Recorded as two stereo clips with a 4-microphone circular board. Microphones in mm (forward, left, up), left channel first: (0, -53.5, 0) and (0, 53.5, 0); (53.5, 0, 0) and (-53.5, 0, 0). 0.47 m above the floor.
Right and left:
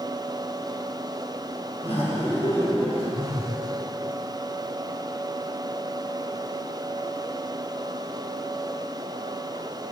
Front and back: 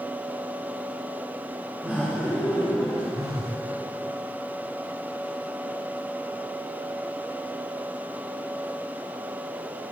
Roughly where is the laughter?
Right.